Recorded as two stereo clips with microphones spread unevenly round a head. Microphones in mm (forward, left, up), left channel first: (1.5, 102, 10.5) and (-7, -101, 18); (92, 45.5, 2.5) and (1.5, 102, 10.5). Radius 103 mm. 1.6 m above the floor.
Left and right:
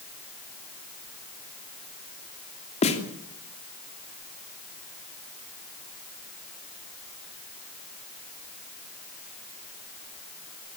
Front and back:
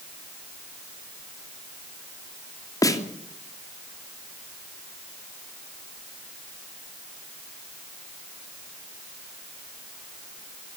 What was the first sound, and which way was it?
A snare drum, 25° left.